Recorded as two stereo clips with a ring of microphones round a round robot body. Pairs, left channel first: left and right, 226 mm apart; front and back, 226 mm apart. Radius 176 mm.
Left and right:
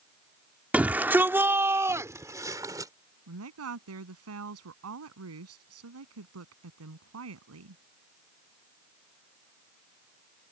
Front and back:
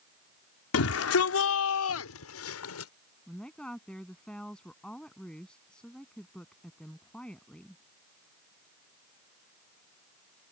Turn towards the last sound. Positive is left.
turn(degrees=-85)